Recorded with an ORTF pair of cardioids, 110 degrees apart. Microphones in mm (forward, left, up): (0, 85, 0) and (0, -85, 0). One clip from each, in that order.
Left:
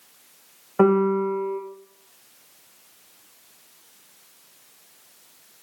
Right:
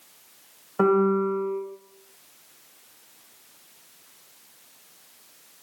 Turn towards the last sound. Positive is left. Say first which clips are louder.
# left 2 dB
turn(degrees=20)